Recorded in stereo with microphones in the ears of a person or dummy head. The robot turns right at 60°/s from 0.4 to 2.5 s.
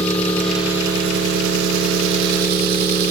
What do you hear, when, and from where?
0.0 s an engine running: 175° left, 0.8 m; by 3.1 s 60° right, 0.8 m